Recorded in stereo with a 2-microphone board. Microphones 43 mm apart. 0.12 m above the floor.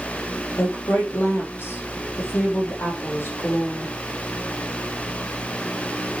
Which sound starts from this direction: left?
A woman speaking, at 0.6 s.